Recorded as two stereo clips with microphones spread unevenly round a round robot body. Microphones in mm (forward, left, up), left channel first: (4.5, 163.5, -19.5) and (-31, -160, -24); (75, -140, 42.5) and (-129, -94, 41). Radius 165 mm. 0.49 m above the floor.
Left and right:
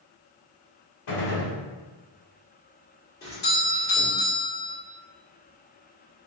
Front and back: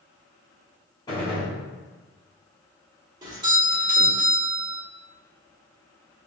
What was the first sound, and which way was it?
A gunshot, 60° left.